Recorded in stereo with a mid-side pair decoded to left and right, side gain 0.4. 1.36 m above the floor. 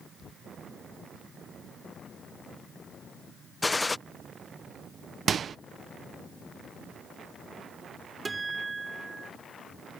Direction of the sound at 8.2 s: 25° right.